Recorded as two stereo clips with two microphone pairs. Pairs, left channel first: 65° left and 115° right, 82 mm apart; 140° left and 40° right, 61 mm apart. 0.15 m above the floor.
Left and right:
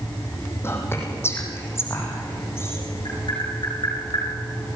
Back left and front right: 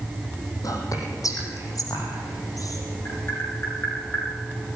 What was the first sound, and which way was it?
Whispering, 125° left.